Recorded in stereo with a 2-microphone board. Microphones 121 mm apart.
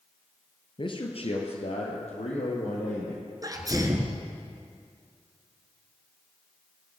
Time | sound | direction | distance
0.8 | a man speaking | 45° left (ahead or behind) | 1.8 m
3.4 | a sneeze | 30° right (ahead or behind) | 1.7 m